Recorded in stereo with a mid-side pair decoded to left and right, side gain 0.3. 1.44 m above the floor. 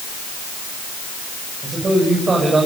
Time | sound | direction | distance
1.6 | a man speaking | 50° right | 8 m